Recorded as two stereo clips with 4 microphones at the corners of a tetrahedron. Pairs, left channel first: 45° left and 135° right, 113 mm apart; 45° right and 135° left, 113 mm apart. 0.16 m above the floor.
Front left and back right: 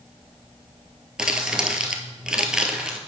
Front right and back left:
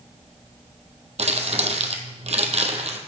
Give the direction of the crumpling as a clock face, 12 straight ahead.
7 o'clock.